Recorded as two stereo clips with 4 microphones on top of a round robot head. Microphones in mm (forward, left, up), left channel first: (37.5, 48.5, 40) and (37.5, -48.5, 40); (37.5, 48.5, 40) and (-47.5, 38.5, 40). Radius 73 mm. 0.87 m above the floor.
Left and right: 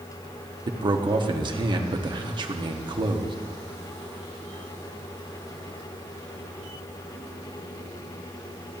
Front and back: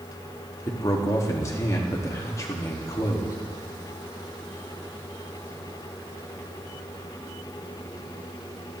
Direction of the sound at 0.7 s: 55° right.